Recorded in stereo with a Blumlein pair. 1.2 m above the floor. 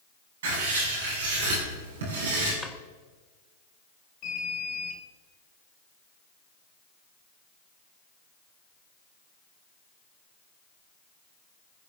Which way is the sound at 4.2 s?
40° left.